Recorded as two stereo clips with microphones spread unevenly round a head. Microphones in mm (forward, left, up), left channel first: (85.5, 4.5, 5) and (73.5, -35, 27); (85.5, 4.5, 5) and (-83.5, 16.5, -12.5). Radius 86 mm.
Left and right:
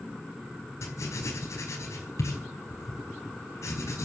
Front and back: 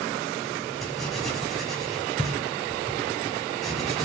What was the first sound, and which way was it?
Writing, 85° left.